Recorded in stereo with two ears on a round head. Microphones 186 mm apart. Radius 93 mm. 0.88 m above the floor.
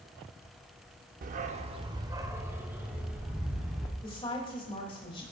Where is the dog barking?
40° right (ahead or behind), 0.6 m; by 3.9 s 5° right (ahead or behind), 2 m.